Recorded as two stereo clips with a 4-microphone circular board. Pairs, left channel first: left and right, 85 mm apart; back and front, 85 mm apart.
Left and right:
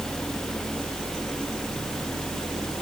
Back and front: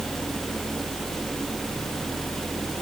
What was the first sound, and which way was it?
Only background noise.